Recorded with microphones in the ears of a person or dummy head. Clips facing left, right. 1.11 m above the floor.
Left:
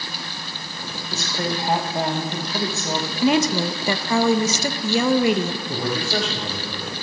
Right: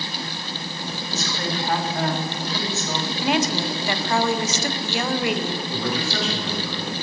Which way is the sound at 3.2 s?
75° left (ahead or behind).